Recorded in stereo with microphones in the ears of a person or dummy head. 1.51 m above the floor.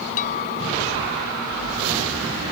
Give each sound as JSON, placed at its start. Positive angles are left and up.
{"t": 0.2, "sound": "a clink", "side_deg": 45}